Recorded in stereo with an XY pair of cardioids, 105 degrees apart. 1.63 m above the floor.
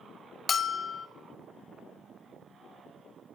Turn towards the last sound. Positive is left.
turn(degrees=35)